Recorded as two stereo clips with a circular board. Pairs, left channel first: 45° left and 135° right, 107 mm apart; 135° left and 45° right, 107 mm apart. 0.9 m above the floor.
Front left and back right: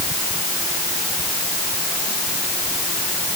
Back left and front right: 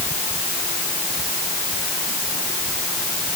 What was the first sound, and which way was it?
Only background noise.